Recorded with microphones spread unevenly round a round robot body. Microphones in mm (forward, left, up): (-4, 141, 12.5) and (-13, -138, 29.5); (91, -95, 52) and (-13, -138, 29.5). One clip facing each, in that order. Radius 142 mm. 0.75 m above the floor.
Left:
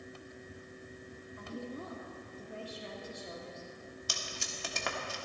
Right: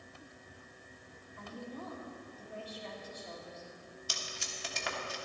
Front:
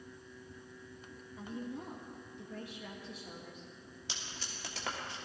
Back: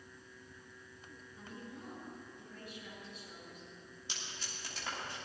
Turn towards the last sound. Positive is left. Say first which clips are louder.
# left 2 dB, front 1 dB
turn(degrees=50)